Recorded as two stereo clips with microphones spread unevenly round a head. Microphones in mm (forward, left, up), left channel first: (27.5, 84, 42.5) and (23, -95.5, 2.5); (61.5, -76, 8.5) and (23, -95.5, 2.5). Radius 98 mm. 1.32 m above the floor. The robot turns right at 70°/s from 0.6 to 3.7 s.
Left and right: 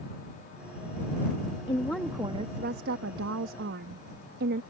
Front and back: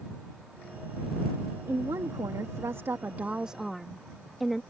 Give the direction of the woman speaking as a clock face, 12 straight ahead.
7 o'clock.